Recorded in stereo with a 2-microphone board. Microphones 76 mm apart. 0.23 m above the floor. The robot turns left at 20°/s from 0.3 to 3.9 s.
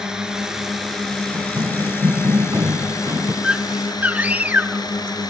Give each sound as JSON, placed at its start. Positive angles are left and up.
{"t": 0.0, "sound": "a drone", "azimuth_deg": -170}
{"t": 1.3, "sound": "running footsteps", "side_deg": -60}
{"t": 3.4, "sound": "a scream", "side_deg": -10}